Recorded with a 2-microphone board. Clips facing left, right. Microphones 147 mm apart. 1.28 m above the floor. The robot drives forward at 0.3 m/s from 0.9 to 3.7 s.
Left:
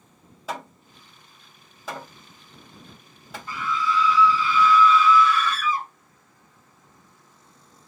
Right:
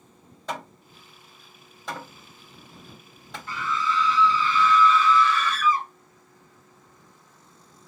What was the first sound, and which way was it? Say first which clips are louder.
Hammering: even; 5° left (ahead or behind).